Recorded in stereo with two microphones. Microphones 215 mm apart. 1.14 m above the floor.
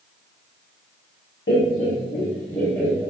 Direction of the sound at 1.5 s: 55° left (ahead or behind).